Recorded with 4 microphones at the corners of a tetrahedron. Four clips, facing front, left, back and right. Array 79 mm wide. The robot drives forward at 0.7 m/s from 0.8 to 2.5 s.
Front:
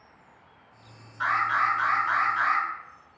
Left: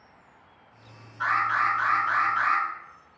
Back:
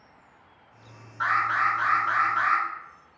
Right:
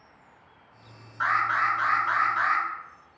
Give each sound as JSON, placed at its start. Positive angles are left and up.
{"t": 1.2, "sound": "an alarm", "azimuth_deg": -120, "distance_m": 1.5}